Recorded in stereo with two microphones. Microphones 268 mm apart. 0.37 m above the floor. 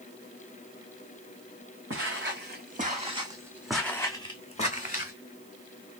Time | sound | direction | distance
1.9 | footsteps | 50° right (ahead or behind) | 1.5 m